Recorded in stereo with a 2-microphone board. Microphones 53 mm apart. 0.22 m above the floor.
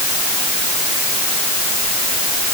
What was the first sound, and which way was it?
Only background noise.